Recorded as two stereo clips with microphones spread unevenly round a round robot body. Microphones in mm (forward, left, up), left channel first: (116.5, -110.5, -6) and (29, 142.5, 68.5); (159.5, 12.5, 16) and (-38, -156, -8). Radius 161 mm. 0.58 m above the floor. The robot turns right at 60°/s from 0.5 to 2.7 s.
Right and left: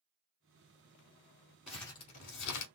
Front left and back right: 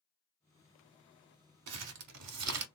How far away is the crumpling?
About 0.7 m.